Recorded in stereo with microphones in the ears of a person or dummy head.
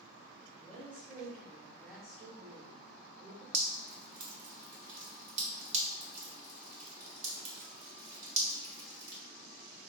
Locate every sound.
0.5 s a woman speaking: 5° right (ahead or behind), 1.2 m
3.5 s dripping: 35° right (ahead or behind), 1.4 m